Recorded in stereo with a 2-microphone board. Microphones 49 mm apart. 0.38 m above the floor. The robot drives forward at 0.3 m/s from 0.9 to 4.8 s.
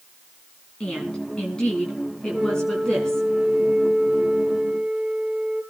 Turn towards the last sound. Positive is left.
turn(degrees=-5)  # may be behind; listen again after turning